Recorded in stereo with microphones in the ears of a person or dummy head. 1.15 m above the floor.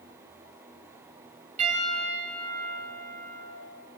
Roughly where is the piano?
Right.